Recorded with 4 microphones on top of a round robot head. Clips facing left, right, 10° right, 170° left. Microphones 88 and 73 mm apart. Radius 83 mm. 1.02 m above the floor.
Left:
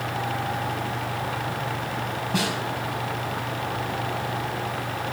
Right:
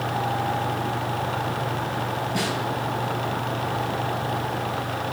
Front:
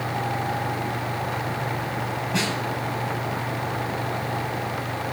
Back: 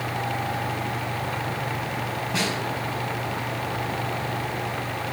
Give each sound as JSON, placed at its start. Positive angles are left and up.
{"t": 2.3, "sound": "a snare drum", "azimuth_deg": 80, "distance_m": 4.5}